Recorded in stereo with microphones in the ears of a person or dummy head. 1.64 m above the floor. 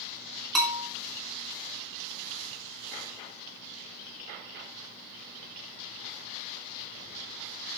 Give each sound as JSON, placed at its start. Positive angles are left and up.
{"t": 0.6, "sound": "a bell", "side_deg": 5, "distance_m": 2.5}